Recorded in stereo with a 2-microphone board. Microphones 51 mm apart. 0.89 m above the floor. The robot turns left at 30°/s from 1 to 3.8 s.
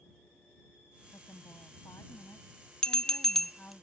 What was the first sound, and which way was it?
A woman speaking, 105° left.